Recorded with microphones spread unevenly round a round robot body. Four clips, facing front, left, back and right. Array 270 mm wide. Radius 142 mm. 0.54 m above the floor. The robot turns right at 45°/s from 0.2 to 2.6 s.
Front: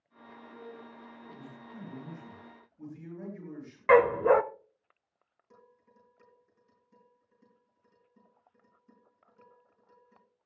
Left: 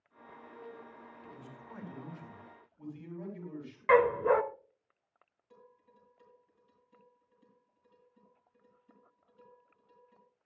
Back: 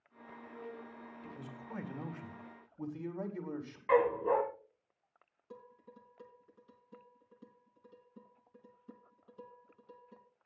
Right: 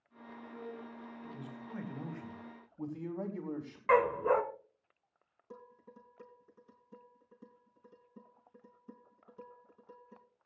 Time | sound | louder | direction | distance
1.2 | a man speaking | right 3 dB, back 2 dB | 170° left | 4 m
3.9 | a dog barking | left 3 dB, front 7 dB | 10° left | 0.6 m
5.5 | dishes clattering | right 7 dB, back 7 dB | 115° right | 3.5 m